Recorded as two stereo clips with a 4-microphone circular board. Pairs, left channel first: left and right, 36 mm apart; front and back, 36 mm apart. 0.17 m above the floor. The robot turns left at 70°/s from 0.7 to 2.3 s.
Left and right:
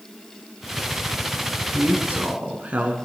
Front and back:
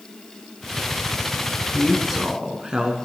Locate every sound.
1.7 s a woman speaking: 75° right, 1.4 m; by 3.0 s 120° right, 1.4 m